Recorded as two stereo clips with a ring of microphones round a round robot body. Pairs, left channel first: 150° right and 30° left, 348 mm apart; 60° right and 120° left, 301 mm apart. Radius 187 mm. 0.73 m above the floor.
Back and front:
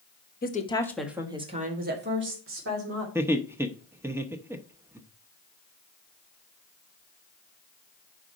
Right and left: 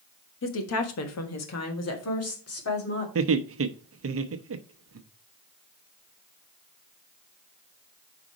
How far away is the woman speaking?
About 1.3 m.